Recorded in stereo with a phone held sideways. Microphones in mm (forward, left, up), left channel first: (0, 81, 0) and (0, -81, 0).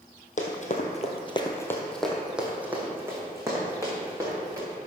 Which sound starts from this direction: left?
Running footsteps, at 0.4 s.